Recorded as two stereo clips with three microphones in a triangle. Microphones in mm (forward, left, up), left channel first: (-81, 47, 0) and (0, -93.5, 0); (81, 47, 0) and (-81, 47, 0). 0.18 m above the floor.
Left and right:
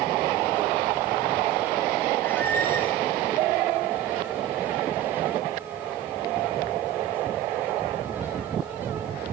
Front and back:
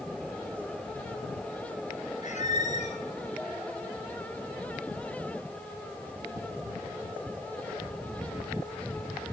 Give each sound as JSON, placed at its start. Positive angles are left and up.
{"t": 2.2, "sound": "a squeak", "azimuth_deg": 40, "distance_m": 2.0}